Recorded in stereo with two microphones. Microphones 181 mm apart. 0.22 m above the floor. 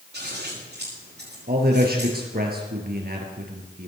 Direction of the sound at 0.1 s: 65° right (ahead or behind).